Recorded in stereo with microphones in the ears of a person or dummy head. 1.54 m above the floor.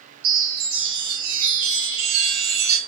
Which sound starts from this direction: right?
A chime, at 0.2 s.